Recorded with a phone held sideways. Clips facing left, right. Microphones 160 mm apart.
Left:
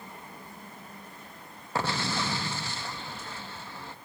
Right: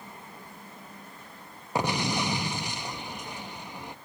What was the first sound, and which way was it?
An explosion, 15° right (ahead or behind).